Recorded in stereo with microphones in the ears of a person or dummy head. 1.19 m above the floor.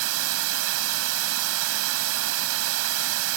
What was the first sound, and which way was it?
Running water, 75° right (ahead or behind).